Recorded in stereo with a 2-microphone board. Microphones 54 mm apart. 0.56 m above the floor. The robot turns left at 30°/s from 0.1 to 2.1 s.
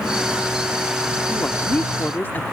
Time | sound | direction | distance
1.3 | a woman speaking | 40° left (ahead or behind) | ?